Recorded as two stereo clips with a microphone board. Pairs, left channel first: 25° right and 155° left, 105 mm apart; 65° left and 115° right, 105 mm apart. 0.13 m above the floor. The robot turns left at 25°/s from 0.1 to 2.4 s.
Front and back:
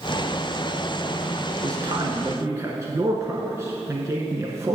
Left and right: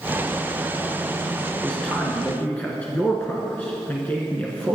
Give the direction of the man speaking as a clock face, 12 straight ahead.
7 o'clock.